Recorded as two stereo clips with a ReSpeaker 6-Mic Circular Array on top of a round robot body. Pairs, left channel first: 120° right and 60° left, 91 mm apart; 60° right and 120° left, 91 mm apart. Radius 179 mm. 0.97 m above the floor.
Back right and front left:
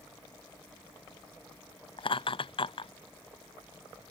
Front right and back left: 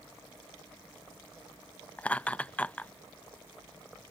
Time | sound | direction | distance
2.0 | laughter | 135° right | ?